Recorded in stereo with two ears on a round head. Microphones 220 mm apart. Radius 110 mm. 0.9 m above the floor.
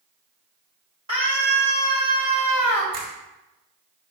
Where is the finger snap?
65° right (ahead or behind), 3 m.